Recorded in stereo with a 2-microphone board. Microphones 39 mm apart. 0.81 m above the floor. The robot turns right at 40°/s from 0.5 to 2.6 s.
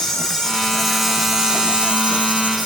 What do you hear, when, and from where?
0.0 s an insect: 160° left, 0.7 m; by 2.7 s 115° right, 0.7 m